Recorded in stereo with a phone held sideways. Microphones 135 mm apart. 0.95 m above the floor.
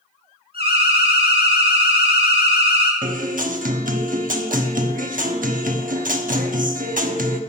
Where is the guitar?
85° right, 1.0 m.